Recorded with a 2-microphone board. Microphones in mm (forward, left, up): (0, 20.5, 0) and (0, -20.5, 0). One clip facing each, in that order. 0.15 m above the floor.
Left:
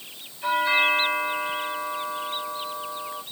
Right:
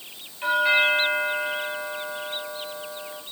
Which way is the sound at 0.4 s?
45° right (ahead or behind).